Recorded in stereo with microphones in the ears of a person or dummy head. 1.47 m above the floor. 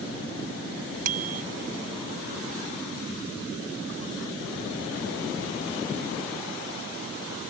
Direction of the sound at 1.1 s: 60° right (ahead or behind).